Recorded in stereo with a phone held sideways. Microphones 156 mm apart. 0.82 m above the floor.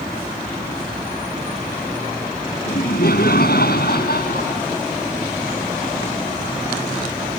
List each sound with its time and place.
2.7 s laughter: 75° left (ahead or behind); by 4.6 s 85° left